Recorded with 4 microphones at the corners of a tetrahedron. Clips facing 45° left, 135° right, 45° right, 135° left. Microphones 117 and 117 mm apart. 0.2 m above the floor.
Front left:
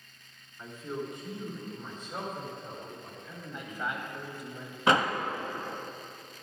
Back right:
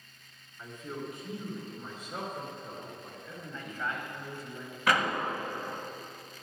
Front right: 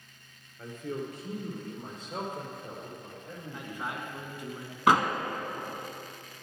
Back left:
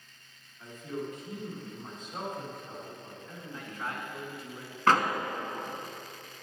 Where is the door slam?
15° left, 0.8 m.